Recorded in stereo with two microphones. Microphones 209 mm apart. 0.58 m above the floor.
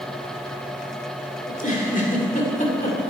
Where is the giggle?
40° left (ahead or behind), 2 m.